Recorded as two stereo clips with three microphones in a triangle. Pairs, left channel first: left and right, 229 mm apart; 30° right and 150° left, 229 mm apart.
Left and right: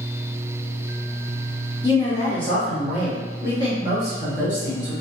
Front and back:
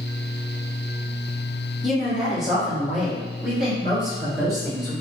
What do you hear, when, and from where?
1.8 s a woman speaking: 60° left, 1.2 m; by 4.9 s 125° right, 1.7 m